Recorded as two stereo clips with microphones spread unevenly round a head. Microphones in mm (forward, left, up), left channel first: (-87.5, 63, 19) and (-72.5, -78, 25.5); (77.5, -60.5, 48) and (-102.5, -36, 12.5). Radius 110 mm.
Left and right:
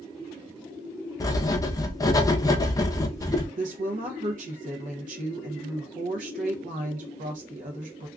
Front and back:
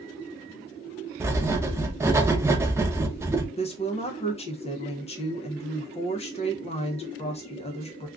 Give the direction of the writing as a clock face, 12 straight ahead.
8 o'clock.